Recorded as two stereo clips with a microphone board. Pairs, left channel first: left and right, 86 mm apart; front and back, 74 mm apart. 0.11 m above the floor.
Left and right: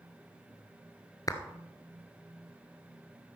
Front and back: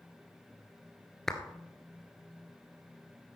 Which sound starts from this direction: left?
A clap, at 1.3 s.